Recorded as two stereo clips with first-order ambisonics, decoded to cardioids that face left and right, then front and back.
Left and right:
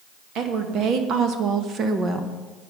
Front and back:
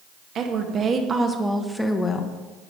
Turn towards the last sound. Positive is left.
turn(degrees=-25)